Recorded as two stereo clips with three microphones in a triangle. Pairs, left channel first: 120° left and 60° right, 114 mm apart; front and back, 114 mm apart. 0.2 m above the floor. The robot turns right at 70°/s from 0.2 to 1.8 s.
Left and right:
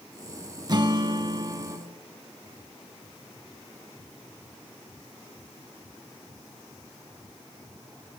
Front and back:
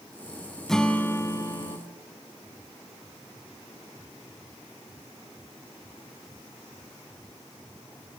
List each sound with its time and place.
0.7 s a guitar: 85° right, 0.6 m; by 1.8 s 10° right, 0.6 m